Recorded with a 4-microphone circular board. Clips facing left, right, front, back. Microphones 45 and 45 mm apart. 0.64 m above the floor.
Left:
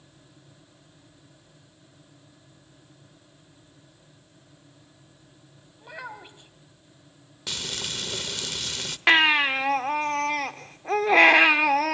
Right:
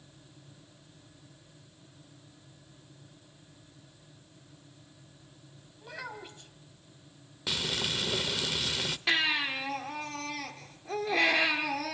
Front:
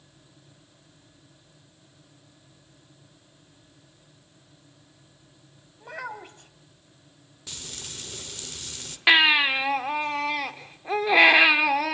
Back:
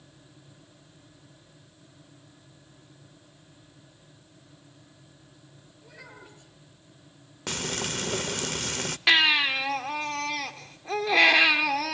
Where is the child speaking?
20° left, 2.5 m.